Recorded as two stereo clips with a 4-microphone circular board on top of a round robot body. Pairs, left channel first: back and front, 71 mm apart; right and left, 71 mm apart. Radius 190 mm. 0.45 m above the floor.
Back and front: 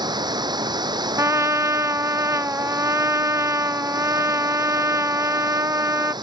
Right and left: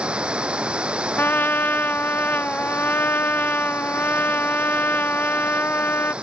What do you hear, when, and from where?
0.0 s running water: 15° left
1.2 s a trumpet: 35° right